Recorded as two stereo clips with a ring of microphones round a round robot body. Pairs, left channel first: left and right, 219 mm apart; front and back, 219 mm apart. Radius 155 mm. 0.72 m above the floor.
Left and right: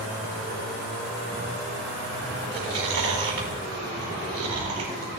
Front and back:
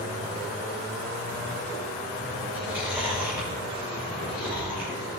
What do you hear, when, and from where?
2.5 s chewing: 95° right, 3 m